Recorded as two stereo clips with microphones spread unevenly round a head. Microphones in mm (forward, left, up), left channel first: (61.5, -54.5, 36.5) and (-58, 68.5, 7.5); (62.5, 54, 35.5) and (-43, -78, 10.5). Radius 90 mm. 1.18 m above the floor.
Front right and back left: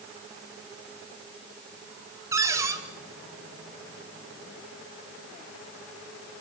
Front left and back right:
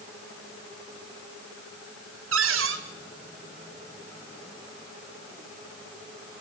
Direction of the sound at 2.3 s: 150° right.